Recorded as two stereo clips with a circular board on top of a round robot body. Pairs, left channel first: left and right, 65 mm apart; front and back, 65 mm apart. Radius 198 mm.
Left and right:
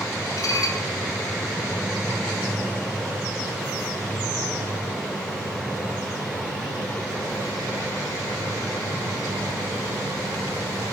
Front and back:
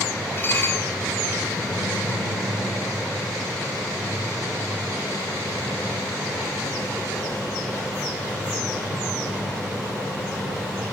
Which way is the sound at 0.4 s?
55° left.